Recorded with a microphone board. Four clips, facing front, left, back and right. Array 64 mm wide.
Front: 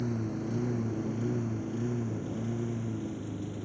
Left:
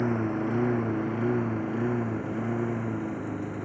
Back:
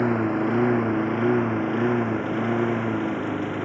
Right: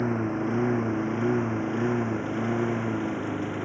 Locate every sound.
0.0 s a lawn mower: straight behind; by 3.6 s 160° right